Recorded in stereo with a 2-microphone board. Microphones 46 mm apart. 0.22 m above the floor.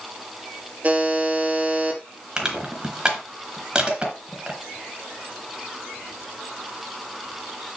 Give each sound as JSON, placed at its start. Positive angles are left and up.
{"t": 0.8, "sound": "a buzzer", "side_deg": -30, "distance_m": 3.0}
{"t": 2.4, "sound": "crushing", "side_deg": -20, "distance_m": 3.0}